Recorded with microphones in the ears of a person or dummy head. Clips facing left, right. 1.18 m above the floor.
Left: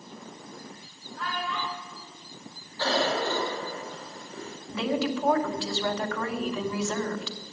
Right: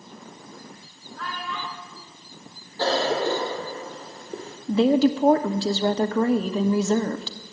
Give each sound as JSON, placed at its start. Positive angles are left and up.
{"t": 1.2, "sound": "a child speaking", "side_deg": -5, "distance_m": 8.5}
{"t": 2.8, "sound": "a cough", "side_deg": -40, "distance_m": 1.8}
{"t": 4.7, "sound": "a woman speaking", "side_deg": -40, "distance_m": 1.0}